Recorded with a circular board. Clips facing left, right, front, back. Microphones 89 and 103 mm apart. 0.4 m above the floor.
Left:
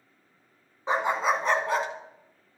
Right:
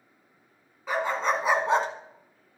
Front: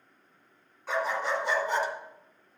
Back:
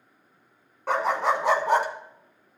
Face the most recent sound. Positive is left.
turn(degrees=-145)